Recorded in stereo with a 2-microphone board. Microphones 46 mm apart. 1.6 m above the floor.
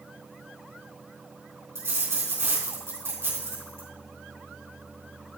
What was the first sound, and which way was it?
A dropped coin, 70° right (ahead or behind).